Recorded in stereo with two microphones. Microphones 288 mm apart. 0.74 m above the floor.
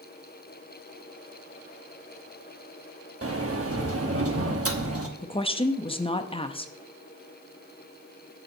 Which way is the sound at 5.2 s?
20° left (ahead or behind).